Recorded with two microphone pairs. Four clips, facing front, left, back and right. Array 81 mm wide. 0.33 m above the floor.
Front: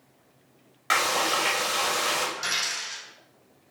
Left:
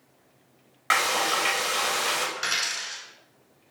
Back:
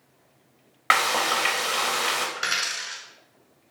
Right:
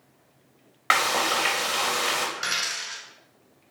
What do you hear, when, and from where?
0.9 s frying: 150° right, 0.6 m
2.4 s a dropped coin: straight behind, 0.7 m